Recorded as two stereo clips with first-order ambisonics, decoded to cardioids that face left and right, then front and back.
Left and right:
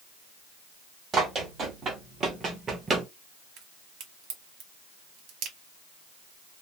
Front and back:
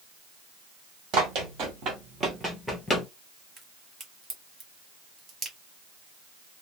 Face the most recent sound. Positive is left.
turn(degrees=-120)